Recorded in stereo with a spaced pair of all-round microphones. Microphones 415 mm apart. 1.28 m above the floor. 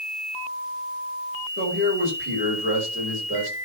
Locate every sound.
1.6 s a man speaking: 30° right (ahead or behind), 5.5 m